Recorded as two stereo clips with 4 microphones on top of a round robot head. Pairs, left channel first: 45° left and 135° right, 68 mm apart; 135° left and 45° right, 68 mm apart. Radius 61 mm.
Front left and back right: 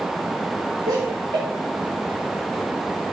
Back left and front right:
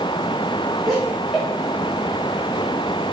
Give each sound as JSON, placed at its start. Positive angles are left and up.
{"t": 0.9, "sound": "laughter", "azimuth_deg": -130, "distance_m": 1.3}